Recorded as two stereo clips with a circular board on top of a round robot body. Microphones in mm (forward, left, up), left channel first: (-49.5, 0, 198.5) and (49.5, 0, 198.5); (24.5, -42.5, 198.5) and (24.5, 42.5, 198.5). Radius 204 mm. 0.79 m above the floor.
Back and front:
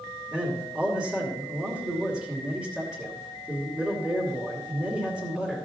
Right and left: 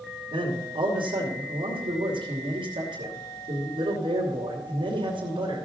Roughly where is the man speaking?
Left.